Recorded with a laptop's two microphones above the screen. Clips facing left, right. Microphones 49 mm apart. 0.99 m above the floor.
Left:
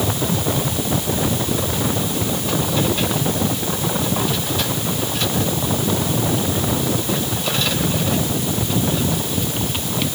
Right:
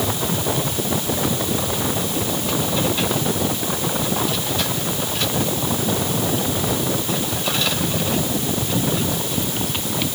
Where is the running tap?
I don't hear a running tap.